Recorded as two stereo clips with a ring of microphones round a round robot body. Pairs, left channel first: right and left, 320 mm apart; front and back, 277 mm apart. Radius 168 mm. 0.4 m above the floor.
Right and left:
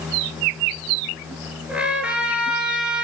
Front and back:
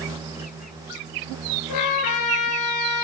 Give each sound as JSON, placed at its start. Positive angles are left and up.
{"t": 1.7, "sound": "a trumpet", "azimuth_deg": 5, "distance_m": 6.0}